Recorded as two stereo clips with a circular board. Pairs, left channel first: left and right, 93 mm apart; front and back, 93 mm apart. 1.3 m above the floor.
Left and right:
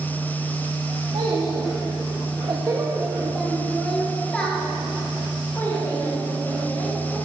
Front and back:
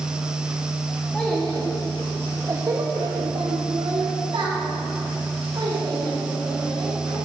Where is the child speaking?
80° right, 1.6 m; by 7.2 s 150° left, 4 m.